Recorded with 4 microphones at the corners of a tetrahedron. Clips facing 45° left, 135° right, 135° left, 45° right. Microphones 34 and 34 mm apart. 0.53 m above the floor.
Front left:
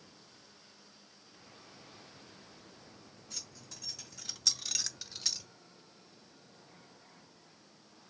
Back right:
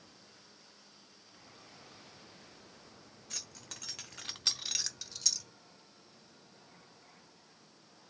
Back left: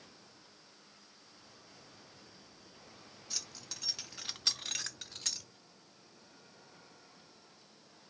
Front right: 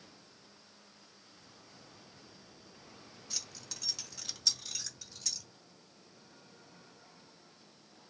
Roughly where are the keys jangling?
Behind right.